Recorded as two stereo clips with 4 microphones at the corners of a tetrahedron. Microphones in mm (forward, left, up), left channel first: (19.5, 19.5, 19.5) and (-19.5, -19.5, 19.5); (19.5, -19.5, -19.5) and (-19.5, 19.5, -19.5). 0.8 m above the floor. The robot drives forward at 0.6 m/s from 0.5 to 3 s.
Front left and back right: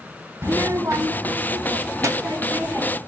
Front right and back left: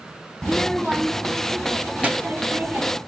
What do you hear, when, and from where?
0.4 s a child speaking: 110° right, 0.5 m; by 3.0 s 170° right, 1.7 m